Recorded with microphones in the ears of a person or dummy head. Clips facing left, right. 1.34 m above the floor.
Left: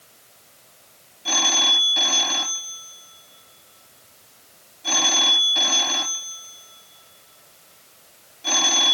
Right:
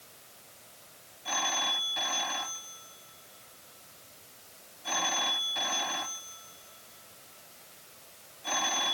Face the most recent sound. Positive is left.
turn(degrees=65)  # may be behind; listen again after turning